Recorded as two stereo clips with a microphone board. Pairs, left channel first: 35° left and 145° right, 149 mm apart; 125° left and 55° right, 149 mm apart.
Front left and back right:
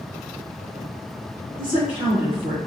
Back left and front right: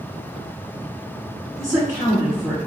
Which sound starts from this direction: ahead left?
A woman speaking, at 1.6 s.